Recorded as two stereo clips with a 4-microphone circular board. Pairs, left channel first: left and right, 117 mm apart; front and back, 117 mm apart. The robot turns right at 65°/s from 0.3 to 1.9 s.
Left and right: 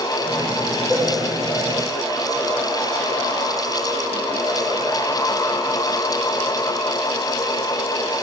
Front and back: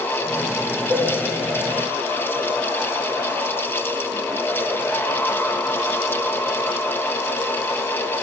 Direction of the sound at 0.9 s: 145° right.